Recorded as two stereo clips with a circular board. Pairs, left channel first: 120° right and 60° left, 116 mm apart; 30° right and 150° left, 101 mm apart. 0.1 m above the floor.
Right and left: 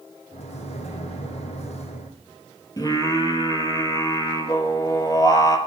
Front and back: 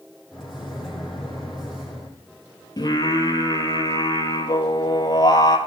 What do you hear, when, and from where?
0.3 s a microwave: 125° right, 3 m
2.8 s singing: 70° right, 1.8 m